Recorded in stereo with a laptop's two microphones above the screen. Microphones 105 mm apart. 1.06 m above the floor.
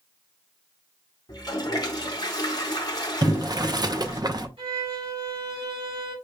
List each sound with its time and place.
1.3 s a toilet flushing: 40° left (ahead or behind), 0.9 m
3.2 s boiling: 40° right (ahead or behind), 0.5 m
4.6 s a violin: 65° right (ahead or behind), 2 m